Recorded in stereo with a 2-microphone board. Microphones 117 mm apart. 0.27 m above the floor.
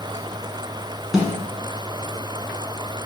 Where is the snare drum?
5° right (ahead or behind), 1.1 m.